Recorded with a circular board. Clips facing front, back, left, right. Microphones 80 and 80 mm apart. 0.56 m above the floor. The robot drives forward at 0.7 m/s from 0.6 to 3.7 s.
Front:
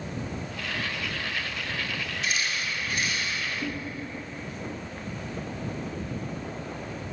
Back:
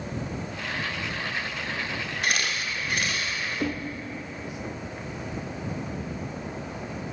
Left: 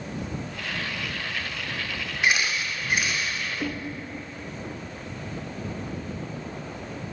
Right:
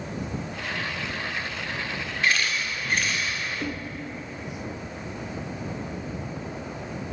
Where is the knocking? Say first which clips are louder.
Back 4 dB, left 3 dB; 170° left, 0.8 m.